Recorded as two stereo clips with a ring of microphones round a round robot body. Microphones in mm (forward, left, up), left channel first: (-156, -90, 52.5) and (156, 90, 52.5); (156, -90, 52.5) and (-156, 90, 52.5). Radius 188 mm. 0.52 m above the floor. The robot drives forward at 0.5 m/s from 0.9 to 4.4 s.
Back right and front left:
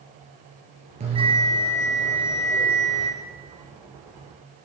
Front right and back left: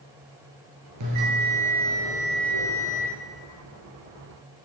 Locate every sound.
1.0 s a bell: 105° left, 2.5 m; by 3.1 s 125° left, 3 m